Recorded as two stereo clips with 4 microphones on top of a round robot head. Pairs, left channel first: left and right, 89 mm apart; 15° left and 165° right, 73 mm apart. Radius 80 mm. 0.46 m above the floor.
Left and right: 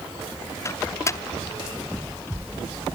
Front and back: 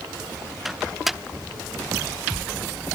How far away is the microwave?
About 1.0 m.